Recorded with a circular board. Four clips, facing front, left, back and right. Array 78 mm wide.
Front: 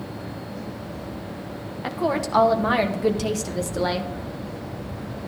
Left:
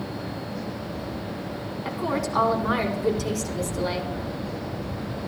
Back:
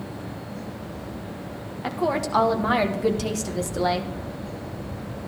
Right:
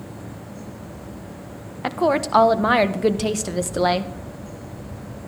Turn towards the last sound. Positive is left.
turn(degrees=-90)